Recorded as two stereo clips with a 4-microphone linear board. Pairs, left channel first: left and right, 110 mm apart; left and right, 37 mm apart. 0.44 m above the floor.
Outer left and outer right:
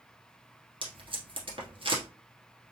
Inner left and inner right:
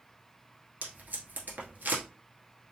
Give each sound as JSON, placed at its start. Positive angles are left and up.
{"t": 0.8, "sound": "tape being pulled", "side_deg": -55, "distance_m": 1.2}